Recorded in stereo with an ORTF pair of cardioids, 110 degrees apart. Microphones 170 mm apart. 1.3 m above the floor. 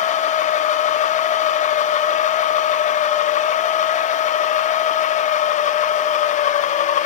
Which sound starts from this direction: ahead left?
A machine running, at 0.0 s.